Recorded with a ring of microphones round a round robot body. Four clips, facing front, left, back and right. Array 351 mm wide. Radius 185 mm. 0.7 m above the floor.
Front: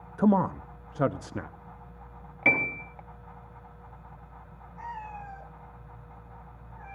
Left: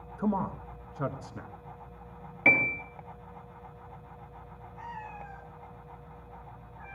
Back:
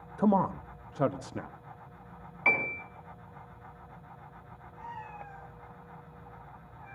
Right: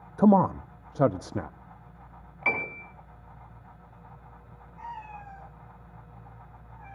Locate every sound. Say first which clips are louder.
0.2 s a man speaking: right 10 dB, front 2 dB; 75° right, 0.7 m
2.5 s a piano: left 4 dB, front 3 dB; 45° left, 3.5 m
4.8 s a cat meowing: right 2 dB, front 4 dB; 15° left, 10 m